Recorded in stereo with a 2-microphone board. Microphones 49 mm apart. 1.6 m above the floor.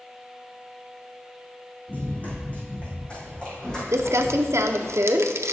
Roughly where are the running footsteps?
Left.